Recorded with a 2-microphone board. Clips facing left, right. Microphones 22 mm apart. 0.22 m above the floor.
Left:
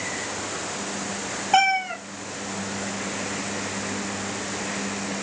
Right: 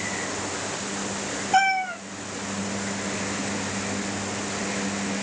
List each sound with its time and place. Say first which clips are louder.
1.5 s a cat meowing: left 1 dB; 30° left (ahead or behind), 1.4 m